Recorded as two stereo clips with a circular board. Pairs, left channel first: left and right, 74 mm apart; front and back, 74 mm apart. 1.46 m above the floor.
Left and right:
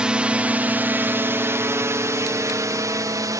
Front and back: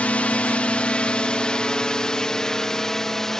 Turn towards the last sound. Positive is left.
turn(degrees=-80)